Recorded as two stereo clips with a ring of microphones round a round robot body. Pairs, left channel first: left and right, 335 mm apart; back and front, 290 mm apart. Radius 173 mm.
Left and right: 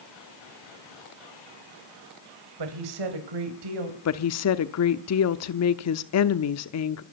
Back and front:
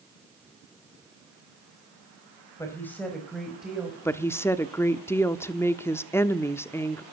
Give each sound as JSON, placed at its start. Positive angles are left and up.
{"t": 2.6, "sound": "a woman speaking", "azimuth_deg": -100, "distance_m": 3.5}
{"t": 4.0, "sound": "a woman speaking", "azimuth_deg": 100, "distance_m": 1.0}